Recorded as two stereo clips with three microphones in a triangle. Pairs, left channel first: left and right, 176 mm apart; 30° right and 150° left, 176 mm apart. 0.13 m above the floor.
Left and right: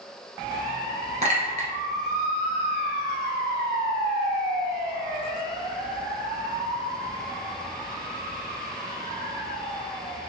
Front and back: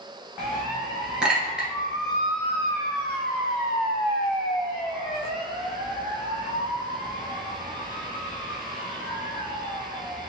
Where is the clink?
125° right, 1.6 m.